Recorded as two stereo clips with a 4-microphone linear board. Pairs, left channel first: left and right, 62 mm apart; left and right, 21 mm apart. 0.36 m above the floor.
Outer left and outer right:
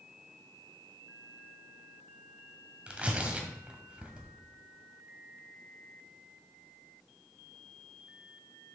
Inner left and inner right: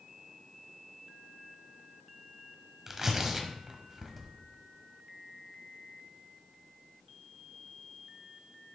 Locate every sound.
2.9 s tearing paper: 20° right (ahead or behind), 1.5 m